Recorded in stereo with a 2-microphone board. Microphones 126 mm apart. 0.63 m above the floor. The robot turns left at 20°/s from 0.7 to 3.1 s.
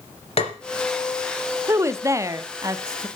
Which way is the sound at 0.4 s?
50° left (ahead or behind).